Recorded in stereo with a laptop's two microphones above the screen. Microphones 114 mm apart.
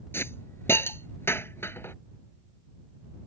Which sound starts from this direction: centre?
A hiss, at 0.1 s.